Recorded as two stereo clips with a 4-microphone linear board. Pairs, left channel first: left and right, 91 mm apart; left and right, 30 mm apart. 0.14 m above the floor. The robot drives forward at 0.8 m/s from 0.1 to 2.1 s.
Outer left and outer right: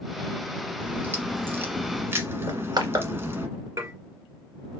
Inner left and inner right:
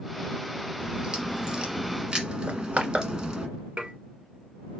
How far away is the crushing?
About 1.5 m.